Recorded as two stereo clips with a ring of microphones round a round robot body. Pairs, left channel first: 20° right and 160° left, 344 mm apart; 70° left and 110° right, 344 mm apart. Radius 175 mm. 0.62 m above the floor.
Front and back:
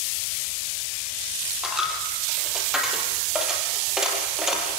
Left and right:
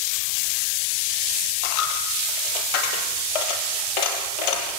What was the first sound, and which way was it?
A dropped coin, 70° left.